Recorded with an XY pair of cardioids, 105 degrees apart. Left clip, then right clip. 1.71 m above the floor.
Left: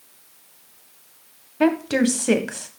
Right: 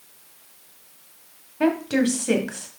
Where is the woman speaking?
35° left, 1.4 m.